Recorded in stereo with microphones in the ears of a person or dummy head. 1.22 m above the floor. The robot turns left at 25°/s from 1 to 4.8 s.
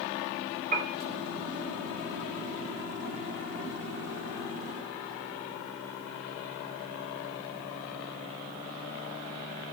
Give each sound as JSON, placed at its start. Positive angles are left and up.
{"t": 0.7, "sound": "a piano", "side_deg": -45, "distance_m": 2.0}